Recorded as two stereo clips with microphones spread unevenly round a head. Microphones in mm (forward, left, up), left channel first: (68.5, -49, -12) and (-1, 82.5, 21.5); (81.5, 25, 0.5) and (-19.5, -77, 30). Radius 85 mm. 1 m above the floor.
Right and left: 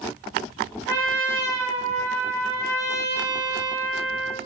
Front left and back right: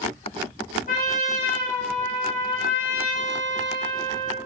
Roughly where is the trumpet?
Ahead.